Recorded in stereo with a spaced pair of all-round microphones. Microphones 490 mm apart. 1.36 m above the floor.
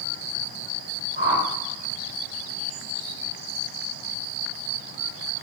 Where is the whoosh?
25° right (ahead or behind), 0.6 m.